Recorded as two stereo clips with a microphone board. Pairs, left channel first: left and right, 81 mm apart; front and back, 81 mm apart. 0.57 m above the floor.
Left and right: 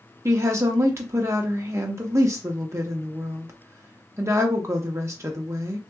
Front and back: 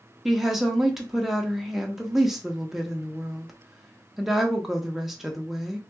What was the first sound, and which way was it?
A woman speaking, 100° right.